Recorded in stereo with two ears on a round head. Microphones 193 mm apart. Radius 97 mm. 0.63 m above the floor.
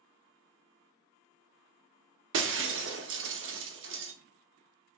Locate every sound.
2.3 s breaking glass: 60° right (ahead or behind), 0.7 m